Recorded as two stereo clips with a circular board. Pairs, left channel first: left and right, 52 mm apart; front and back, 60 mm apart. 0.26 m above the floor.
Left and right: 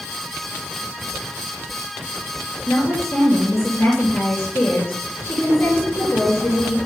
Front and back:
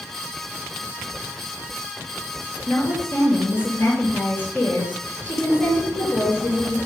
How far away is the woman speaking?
About 4 m.